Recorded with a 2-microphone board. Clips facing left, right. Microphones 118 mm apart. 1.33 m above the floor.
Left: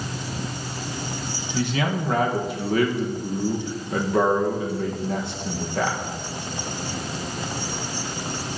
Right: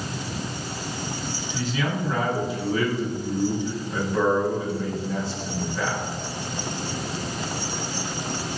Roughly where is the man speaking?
Left.